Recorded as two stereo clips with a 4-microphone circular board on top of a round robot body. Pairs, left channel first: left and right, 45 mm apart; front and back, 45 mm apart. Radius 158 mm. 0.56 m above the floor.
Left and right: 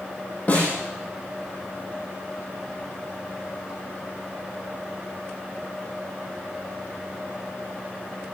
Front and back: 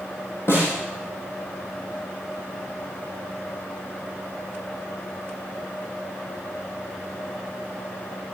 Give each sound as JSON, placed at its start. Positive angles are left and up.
{"t": 0.5, "sound": "a snare drum", "azimuth_deg": 30, "distance_m": 7.5}